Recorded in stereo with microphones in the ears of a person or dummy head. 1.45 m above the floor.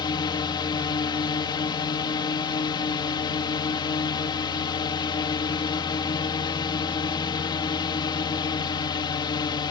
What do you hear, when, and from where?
0.0 s a drone: 25° left (ahead or behind)